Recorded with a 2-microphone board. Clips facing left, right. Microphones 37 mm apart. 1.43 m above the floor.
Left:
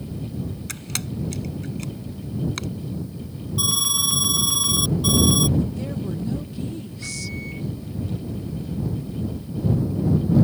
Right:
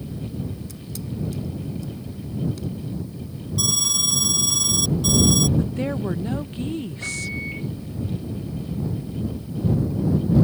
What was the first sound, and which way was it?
A camera shutter, 65° left (ahead or behind).